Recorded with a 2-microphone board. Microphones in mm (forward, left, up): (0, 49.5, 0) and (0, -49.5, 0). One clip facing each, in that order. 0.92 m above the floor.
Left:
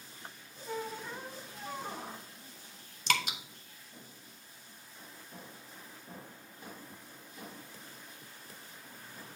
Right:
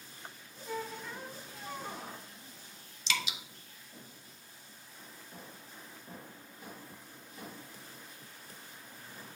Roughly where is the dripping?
Left.